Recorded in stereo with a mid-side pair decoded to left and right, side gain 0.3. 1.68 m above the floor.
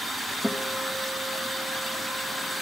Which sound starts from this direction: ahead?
A guitar, at 0.4 s.